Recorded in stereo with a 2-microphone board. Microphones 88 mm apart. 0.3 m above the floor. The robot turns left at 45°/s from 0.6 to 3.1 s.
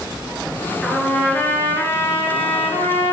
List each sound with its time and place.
0.8 s a trumpet: straight behind, 2 m; by 3.1 s 80° left, 2 m